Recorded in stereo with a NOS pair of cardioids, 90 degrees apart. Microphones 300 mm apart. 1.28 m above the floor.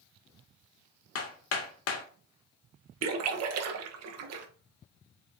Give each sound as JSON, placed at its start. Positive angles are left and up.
{"t": 1.1, "sound": "hammering", "azimuth_deg": 55, "distance_m": 0.6}
{"t": 3.0, "sound": "a splash", "azimuth_deg": -65, "distance_m": 0.6}